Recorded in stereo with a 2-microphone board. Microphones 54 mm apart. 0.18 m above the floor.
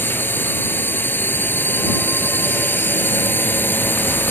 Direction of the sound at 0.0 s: 40° left (ahead or behind).